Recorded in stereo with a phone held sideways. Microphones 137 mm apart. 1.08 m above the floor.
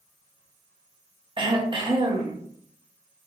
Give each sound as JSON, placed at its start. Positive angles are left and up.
{"t": 1.4, "sound": "throat clearing", "side_deg": -35, "distance_m": 0.7}